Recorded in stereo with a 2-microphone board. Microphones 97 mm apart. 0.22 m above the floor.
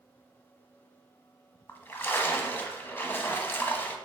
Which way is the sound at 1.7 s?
25° left (ahead or behind).